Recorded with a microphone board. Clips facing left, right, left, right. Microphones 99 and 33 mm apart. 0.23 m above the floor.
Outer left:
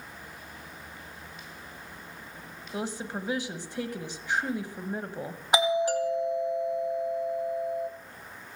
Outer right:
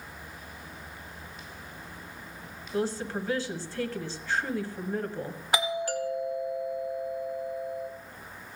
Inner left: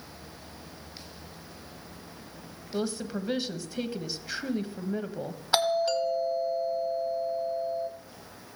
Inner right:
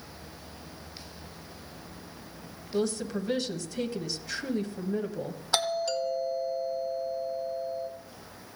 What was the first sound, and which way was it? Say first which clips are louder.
A woman speaking: outer right 4 dB, inner right 2 dB; 15° left (ahead or behind).